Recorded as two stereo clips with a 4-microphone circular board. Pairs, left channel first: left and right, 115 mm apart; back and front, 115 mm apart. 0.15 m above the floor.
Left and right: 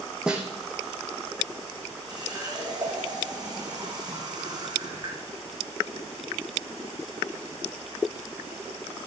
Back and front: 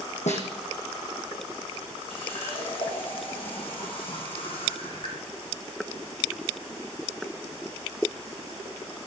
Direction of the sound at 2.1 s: 140° right.